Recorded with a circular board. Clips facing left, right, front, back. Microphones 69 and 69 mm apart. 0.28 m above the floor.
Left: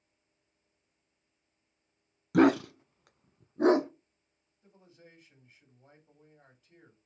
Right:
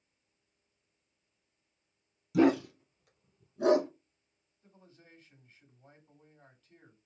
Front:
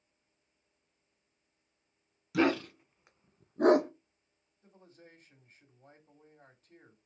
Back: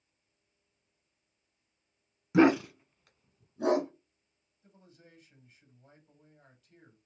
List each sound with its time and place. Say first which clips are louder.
2.3 s a dog barking: left 2 dB, back 6 dB; 120° left, 0.7 m; by 3.9 s 30° left, 1.0 m
4.6 s a man speaking: left 2 dB, front 2 dB; 20° left, 1.8 m